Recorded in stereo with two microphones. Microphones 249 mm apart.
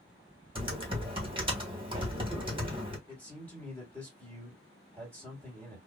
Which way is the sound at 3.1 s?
5° left (ahead or behind).